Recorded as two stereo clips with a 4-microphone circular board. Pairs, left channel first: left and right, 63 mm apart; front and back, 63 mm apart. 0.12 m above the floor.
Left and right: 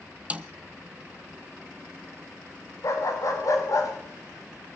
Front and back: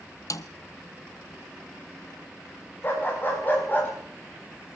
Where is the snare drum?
25° right, 0.9 m.